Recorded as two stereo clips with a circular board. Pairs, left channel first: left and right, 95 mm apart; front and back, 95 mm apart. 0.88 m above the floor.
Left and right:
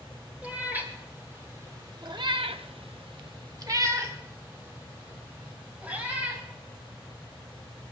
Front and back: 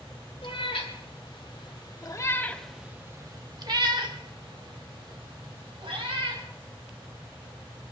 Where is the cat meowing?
15° right, 2 m; by 6.4 s 165° right, 3.5 m.